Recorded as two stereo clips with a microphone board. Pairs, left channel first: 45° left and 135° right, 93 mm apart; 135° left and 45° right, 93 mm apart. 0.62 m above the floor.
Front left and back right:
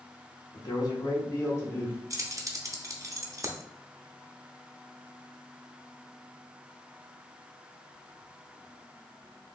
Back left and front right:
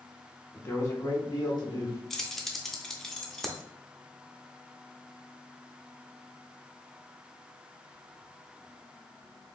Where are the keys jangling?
140° right, 0.6 m.